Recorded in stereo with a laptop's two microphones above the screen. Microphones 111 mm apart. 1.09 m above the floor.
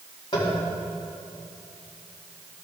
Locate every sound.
0.3 s tapping: 45° left (ahead or behind), 2 m